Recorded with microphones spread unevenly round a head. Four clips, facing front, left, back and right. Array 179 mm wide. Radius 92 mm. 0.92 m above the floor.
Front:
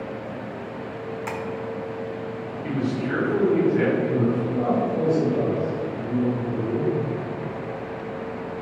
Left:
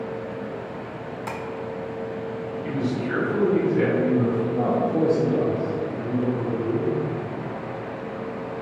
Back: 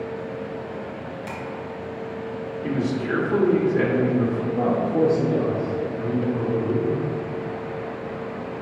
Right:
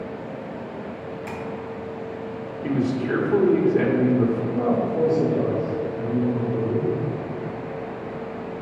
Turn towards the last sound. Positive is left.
turn(degrees=145)